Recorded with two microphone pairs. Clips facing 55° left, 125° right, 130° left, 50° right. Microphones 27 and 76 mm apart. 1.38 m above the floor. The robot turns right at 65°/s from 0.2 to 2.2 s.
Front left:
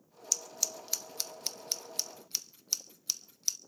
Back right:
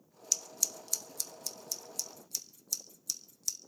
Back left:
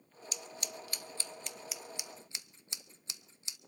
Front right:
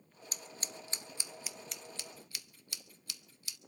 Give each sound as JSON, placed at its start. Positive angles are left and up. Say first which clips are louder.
{"t": 0.3, "sound": "scissors", "louder": "even, back left 2 dB", "azimuth_deg": -45, "distance_m": 0.6}